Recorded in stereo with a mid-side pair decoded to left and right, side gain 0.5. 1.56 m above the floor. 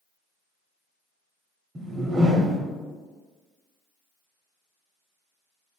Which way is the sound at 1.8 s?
40° right.